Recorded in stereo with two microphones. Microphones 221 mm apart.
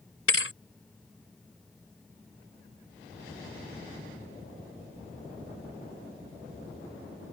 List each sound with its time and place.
0.3 s a thud: 80° left